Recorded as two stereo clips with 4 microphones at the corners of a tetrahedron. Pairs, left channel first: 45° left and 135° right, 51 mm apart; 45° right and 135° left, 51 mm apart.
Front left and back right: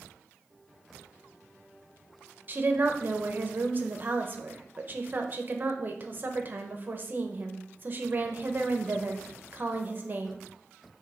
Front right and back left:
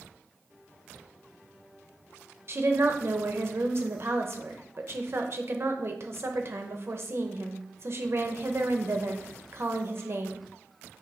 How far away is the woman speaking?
About 1.1 m.